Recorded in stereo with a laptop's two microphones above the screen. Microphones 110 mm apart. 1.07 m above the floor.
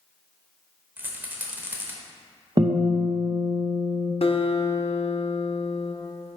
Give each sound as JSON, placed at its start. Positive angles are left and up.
{"t": 1.0, "sound": "a rattle", "side_deg": -20, "distance_m": 0.8}
{"t": 2.6, "sound": "a guitar", "side_deg": -40, "distance_m": 0.8}
{"t": 4.2, "sound": "a guitar", "side_deg": 65, "distance_m": 0.6}